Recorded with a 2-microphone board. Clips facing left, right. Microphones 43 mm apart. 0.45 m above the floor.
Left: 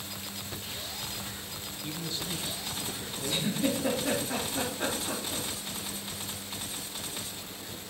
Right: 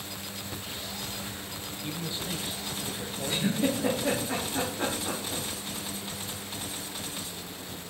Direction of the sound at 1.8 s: 15° right (ahead or behind).